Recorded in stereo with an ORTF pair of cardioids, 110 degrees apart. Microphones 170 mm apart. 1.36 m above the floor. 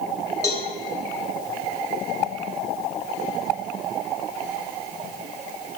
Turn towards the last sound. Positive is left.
turn(degrees=20)